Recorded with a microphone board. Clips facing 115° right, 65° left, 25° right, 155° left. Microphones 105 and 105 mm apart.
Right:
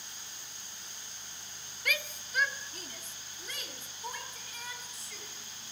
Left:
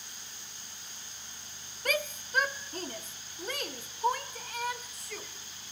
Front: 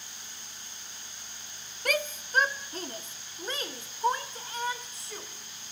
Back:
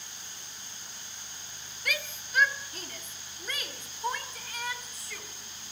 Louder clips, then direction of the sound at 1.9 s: Left 6 dB, front 7 dB; 20° left.